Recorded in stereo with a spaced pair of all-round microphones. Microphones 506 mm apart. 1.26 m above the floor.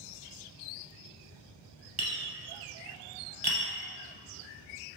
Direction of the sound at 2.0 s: 50° right (ahead or behind).